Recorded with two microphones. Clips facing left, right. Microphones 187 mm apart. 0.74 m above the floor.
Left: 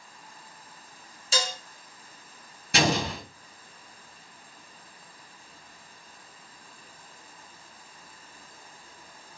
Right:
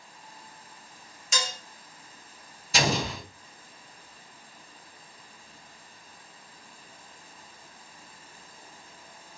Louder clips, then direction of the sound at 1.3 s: Left 4 dB; 30° left (ahead or behind).